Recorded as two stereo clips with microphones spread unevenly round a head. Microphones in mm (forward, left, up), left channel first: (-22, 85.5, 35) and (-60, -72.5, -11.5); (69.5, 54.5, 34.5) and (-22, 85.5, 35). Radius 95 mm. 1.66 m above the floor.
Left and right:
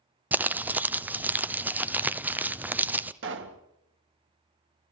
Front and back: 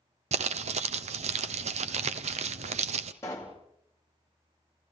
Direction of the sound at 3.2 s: 95° right.